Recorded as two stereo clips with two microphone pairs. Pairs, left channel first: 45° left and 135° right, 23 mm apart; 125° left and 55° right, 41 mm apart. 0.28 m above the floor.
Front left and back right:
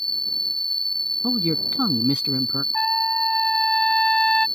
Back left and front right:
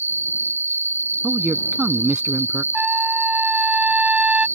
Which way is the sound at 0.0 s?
120° left.